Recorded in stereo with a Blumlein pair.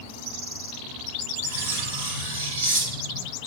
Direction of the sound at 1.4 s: 60° right.